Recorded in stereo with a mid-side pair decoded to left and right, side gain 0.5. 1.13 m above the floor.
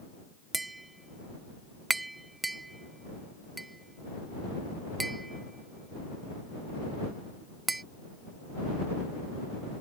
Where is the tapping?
15° right.